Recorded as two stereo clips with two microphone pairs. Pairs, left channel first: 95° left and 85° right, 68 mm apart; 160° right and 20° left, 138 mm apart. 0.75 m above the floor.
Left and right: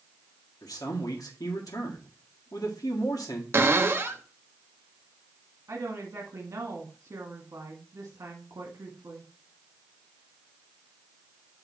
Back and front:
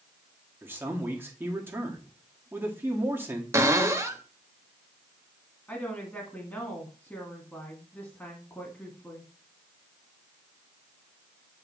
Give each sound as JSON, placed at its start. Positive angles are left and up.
{"t": 0.6, "sound": "a man speaking", "azimuth_deg": 95, "distance_m": 1.5}
{"t": 3.5, "sound": "a cupboard door", "azimuth_deg": -40, "distance_m": 0.9}
{"t": 5.7, "sound": "a woman speaking", "azimuth_deg": -90, "distance_m": 1.5}